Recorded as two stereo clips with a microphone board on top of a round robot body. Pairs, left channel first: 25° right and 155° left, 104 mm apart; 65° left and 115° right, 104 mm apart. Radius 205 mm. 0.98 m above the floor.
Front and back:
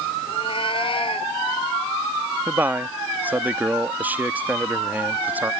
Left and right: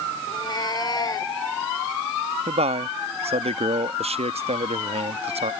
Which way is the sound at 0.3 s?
20° left.